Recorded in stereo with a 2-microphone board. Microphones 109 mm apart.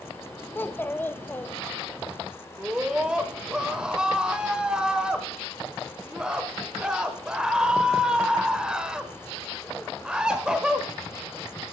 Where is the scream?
5° right (ahead or behind), 1.0 m.